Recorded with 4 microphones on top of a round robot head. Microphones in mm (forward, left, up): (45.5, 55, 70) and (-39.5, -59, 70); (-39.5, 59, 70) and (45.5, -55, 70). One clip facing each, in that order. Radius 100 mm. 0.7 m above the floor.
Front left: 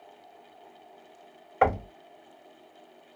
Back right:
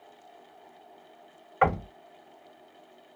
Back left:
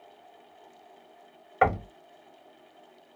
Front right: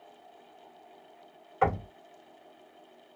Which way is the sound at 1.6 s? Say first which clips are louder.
Front left 1 dB, back left 3 dB; 105° left.